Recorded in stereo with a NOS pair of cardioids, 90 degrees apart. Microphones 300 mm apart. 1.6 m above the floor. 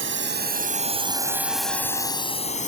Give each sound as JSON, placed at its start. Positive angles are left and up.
{"t": 0.0, "sound": "a drone", "azimuth_deg": -40}